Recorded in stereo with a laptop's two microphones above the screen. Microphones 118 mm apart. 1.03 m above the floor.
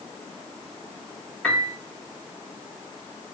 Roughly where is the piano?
Centre.